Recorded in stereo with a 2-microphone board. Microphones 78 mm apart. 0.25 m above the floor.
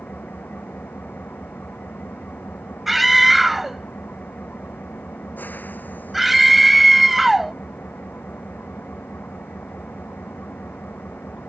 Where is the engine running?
20° left (ahead or behind).